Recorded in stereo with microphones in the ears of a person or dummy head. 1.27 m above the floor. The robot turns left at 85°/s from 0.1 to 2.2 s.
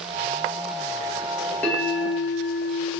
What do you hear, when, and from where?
1.6 s a bell: 15° left, 1.3 m; by 2.9 s 35° right, 1.3 m